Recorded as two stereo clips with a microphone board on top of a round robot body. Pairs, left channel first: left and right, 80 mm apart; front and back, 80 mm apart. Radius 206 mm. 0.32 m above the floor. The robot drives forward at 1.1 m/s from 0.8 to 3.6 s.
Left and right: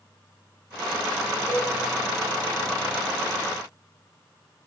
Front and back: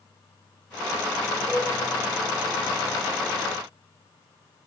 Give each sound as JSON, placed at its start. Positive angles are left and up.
{"t": 1.5, "sound": "a cowbell", "azimuth_deg": -160, "distance_m": 2.5}